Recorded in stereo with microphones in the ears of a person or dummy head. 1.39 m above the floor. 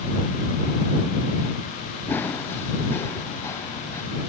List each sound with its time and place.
2.1 s running footsteps: 10° left (ahead or behind); by 4.0 s 15° left (ahead or behind)